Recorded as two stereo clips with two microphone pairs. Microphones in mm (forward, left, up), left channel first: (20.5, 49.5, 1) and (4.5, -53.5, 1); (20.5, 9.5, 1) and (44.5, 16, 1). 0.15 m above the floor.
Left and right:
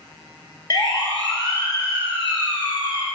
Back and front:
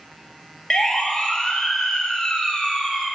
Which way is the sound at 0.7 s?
125° left.